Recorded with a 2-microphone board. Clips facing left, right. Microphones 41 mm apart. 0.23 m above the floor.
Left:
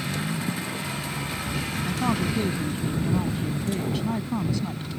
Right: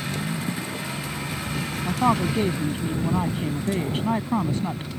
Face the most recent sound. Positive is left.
turn(degrees=-40)  # may be behind; listen again after turning